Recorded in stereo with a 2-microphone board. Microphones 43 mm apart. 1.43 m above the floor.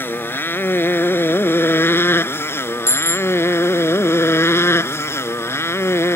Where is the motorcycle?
55° left (ahead or behind); by 6.2 s 85° left.